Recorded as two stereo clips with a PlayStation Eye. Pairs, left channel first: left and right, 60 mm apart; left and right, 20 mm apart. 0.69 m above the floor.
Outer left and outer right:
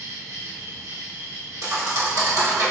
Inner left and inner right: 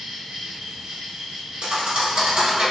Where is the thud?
70° right (ahead or behind), 1.2 m.